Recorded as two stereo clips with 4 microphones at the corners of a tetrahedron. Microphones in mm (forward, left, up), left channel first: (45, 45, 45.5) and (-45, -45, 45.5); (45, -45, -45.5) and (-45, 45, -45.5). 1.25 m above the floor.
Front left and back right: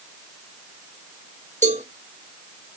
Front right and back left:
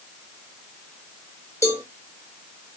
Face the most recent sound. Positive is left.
turn(degrees=-110)